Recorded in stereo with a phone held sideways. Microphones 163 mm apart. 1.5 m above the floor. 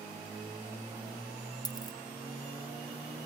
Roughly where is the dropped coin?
Left.